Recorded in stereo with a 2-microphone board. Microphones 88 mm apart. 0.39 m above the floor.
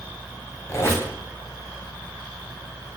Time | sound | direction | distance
0.7 | a squeak | 35° left (ahead or behind) | 1.3 m